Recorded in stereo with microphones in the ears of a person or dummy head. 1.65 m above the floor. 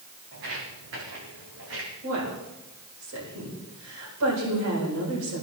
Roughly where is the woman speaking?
Right.